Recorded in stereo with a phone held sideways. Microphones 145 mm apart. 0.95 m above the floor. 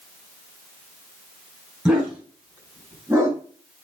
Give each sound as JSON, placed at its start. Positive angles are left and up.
{"t": 1.9, "sound": "a dog barking", "side_deg": -5, "distance_m": 4.5}